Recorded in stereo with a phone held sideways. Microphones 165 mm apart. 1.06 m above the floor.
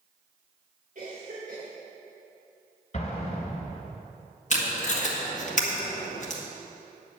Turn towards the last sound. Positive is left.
turn(degrees=50)  # may be behind; listen again after turning